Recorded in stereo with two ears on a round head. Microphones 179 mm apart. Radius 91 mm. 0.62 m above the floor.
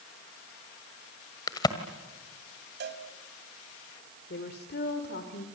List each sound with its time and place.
1.5 s a crack: 20° left (ahead or behind), 1.6 m
2.8 s a cowbell: 60° right (ahead or behind), 2 m
4.3 s a woman speaking: 55° left (ahead or behind), 2.5 m